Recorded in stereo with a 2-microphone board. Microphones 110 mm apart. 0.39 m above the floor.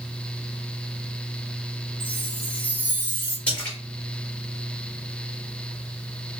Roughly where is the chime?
Centre.